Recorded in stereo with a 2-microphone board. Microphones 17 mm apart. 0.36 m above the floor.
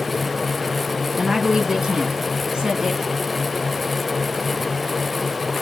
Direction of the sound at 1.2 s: 45° right (ahead or behind).